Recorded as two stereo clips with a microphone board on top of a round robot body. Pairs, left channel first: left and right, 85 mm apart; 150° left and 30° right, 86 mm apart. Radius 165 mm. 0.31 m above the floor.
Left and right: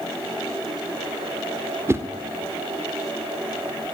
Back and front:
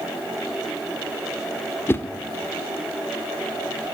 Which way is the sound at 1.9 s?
150° right.